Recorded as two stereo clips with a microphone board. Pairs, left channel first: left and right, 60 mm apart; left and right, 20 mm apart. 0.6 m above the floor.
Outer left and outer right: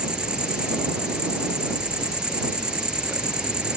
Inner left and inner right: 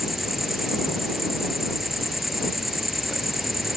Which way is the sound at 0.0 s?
15° right (ahead or behind).